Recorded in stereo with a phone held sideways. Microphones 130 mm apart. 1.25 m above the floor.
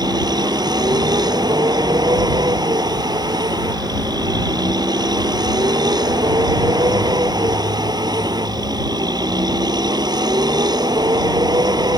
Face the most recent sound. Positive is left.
turn(degrees=-30)  # may be behind; listen again after turning